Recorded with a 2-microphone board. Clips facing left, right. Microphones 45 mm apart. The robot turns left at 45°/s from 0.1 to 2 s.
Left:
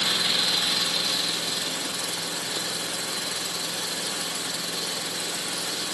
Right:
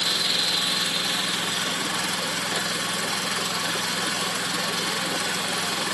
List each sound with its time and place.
0.0 s an engine running: 15° left, 2.5 m; by 6.0 s 70° right, 2.5 m